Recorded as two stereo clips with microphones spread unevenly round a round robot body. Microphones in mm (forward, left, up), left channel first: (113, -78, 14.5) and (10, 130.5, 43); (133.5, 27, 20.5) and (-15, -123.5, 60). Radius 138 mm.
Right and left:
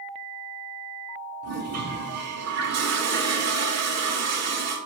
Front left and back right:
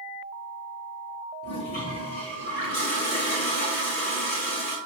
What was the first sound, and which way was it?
A toilet flushing, 110° left.